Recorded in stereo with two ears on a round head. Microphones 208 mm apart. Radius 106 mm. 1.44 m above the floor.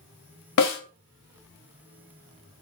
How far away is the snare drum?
About 1.3 m.